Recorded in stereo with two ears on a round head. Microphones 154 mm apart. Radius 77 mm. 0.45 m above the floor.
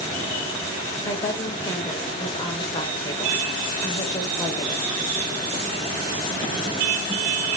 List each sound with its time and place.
1.0 s a woman speaking: 25° left (ahead or behind), 2.0 m